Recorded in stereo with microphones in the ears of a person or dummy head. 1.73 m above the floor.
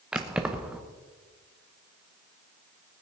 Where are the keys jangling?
5° right (ahead or behind), 1.1 m.